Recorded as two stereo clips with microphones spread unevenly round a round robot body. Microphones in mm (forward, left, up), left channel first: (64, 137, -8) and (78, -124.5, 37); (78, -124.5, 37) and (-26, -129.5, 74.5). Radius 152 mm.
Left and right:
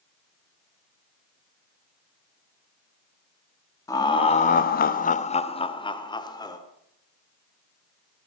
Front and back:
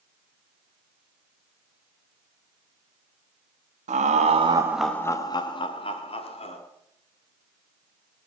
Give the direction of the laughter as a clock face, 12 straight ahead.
6 o'clock.